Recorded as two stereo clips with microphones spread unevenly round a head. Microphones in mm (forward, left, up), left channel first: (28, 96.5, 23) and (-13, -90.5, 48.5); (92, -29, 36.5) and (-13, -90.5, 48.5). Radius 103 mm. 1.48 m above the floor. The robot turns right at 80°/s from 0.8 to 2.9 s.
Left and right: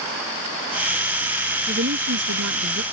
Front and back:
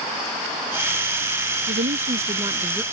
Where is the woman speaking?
155° right; by 2.8 s 65° right.